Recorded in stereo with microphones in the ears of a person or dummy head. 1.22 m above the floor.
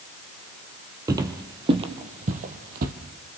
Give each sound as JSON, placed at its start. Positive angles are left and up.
{"t": 1.1, "sound": "footsteps", "side_deg": -20, "distance_m": 1.9}